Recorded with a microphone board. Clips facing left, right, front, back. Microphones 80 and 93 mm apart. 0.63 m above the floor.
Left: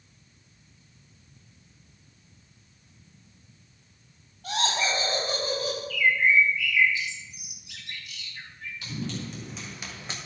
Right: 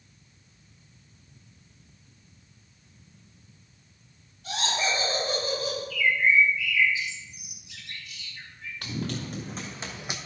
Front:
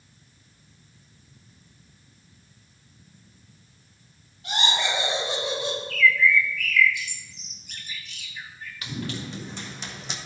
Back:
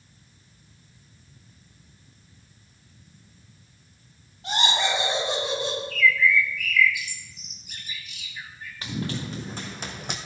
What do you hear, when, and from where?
4.4 s laughter: 130° left, 4.5 m; by 5.8 s 150° left, 5 m
5.9 s a bird: 100° left, 1.5 m
8.8 s running footsteps: 125° right, 2.5 m; by 10.2 s 165° right, 1.1 m